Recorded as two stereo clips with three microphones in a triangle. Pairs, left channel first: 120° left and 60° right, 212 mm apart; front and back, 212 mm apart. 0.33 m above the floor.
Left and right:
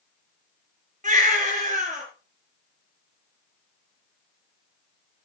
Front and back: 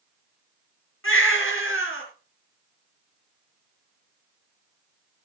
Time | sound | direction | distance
1.0 | a baby crying | 5° right | 4 m